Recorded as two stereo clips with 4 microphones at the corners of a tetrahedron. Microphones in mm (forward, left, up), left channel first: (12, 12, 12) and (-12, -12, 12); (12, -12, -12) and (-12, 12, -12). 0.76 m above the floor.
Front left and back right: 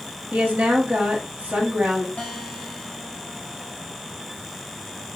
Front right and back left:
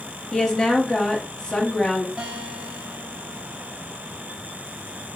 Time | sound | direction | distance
0.3 | a woman speaking | 110° right | 1.5 m
2.2 | a guitar | 85° left | 3 m